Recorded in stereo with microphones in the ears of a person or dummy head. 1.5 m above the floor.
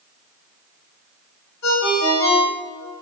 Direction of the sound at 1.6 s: 65° left (ahead or behind).